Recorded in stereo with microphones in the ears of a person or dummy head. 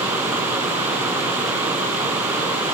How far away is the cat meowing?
I don't hear a cat meowing.